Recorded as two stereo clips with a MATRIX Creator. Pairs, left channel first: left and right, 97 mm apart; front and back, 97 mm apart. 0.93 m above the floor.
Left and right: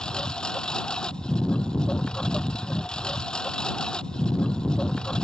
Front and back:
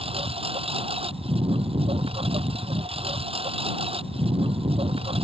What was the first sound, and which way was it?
A lawn mower, 175° left.